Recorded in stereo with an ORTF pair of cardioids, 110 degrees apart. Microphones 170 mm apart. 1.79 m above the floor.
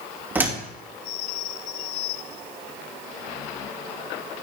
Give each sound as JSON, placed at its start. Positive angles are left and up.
{"t": 0.3, "sound": "a door slam", "azimuth_deg": -10, "distance_m": 2.5}